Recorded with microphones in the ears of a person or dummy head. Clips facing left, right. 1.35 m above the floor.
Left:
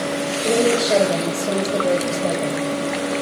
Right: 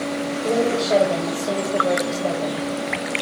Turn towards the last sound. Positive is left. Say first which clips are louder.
# left 3 dB
turn(degrees=15)  # may be behind; listen again after turning